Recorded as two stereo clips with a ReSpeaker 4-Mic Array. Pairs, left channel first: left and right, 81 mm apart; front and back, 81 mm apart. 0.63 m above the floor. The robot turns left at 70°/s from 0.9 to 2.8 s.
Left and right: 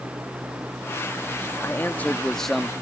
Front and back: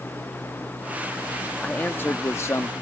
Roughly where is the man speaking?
Ahead left.